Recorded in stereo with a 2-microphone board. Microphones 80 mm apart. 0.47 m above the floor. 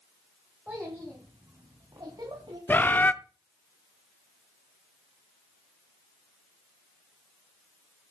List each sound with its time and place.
0.7 s a child speaking: 15° right (ahead or behind), 3 m; by 2.6 s 60° right (ahead or behind), 3 m
2.7 s a bird: 25° left (ahead or behind), 0.7 m